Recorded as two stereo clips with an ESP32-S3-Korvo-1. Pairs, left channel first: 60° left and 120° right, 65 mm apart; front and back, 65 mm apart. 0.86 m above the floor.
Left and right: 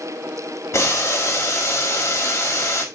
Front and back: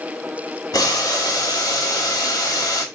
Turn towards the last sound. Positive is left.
turn(degrees=20)